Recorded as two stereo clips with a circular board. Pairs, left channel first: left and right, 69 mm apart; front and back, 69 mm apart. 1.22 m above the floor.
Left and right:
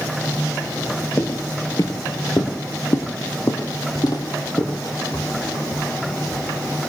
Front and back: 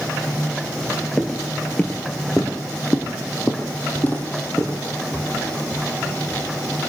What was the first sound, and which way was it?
Footsteps, 75° left.